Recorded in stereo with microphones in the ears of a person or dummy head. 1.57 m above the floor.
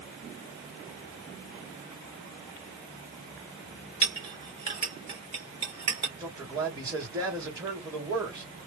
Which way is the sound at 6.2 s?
10° right (ahead or behind).